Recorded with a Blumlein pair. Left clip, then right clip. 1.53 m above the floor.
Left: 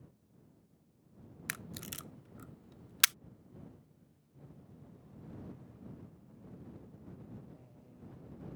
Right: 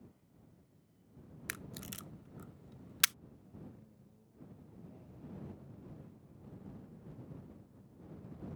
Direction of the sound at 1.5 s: 10° left.